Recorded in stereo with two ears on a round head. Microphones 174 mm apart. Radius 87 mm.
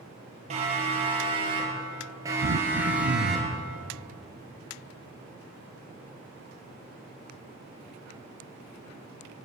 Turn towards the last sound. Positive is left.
turn(degrees=-60)  # may be behind; listen again after turning